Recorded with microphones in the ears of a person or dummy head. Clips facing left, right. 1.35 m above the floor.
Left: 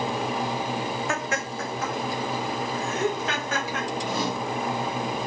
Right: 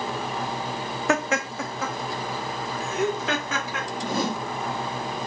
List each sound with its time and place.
1.1 s laughter: 55° right (ahead or behind), 0.5 m; by 3.9 s 75° right (ahead or behind), 2 m
4.0 s a whoosh: 45° right (ahead or behind), 0.8 m